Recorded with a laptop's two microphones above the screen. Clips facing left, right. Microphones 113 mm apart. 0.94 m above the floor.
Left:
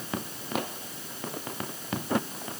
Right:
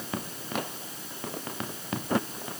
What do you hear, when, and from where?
Only background noise.